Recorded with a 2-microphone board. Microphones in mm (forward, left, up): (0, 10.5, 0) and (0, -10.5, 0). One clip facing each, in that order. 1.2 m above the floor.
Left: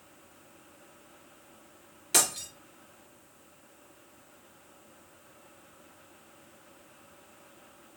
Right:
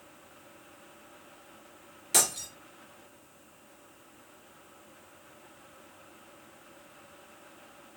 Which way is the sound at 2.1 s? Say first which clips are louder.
Even; 5° left (ahead or behind).